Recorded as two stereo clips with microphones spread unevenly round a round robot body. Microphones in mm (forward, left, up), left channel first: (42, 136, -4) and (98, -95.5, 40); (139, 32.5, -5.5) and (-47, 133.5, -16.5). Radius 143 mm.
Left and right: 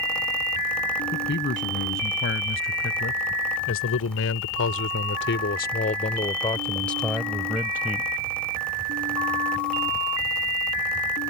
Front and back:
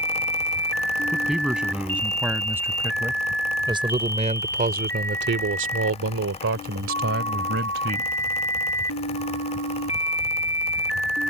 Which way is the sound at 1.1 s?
65° left.